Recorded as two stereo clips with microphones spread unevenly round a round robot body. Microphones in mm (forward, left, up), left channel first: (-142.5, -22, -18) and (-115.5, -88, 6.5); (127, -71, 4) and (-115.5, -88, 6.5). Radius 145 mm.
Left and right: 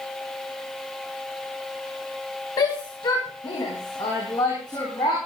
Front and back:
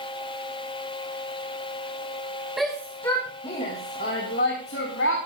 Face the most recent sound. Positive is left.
turn(degrees=55)